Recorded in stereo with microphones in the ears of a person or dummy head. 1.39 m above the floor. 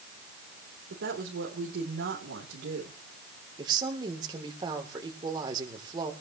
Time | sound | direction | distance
0.9 | a woman speaking | 80° right | 4 m
3.6 | a woman speaking | 25° right (ahead or behind) | 3.5 m